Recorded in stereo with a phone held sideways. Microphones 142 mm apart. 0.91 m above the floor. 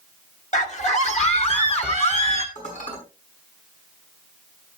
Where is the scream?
55° left (ahead or behind), 1.6 m; by 2.5 s 45° left (ahead or behind), 3 m.